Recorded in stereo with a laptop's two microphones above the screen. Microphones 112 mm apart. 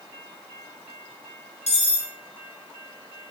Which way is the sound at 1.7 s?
80° left.